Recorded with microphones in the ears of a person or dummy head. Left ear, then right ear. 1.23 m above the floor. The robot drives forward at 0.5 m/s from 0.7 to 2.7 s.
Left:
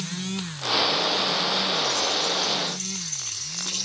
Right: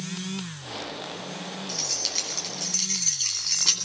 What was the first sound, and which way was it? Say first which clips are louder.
Keys jangling: left 4 dB; 55° right (ahead or behind).